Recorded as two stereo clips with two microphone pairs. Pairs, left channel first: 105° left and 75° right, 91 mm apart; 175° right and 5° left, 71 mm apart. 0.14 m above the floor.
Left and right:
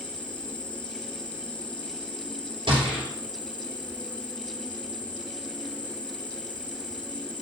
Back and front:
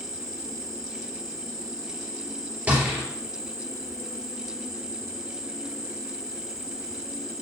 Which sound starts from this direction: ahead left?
An insect, at 0.0 s.